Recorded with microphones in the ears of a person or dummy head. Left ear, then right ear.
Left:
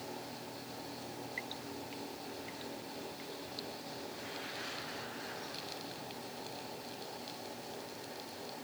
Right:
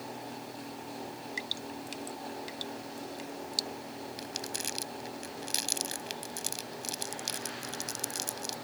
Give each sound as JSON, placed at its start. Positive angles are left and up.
{"t": 1.4, "sound": "dripping", "side_deg": -90}
{"t": 4.2, "sound": "crumpling", "side_deg": -45}